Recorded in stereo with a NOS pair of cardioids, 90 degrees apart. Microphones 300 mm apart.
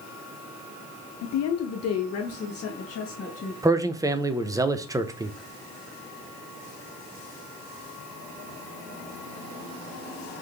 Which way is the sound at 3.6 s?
10° right.